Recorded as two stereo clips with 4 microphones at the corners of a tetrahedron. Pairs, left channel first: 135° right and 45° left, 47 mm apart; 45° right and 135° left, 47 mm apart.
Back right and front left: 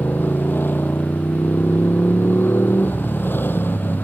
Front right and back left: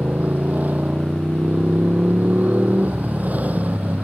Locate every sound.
0.0 s a motorcycle: 170° right